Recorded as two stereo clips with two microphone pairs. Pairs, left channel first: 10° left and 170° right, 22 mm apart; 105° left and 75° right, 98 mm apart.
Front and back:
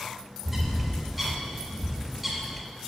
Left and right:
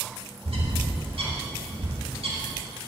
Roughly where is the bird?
Right.